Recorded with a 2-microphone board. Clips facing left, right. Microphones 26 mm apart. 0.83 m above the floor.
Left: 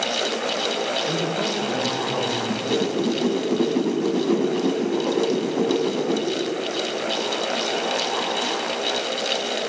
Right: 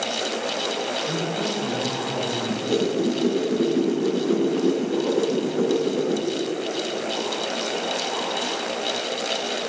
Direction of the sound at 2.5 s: 75° left (ahead or behind).